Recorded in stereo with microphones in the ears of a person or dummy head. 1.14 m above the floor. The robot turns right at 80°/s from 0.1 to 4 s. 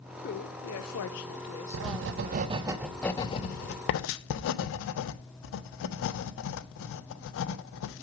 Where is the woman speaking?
45° left, 0.9 m; by 2.5 s 135° right, 0.9 m.